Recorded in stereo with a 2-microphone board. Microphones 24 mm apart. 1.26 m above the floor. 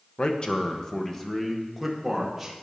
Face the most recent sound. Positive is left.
turn(degrees=-10)  # may be behind; listen again after turning